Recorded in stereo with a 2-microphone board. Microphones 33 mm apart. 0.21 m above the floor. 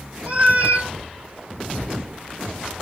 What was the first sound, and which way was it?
A cat meowing, 45° right (ahead or behind).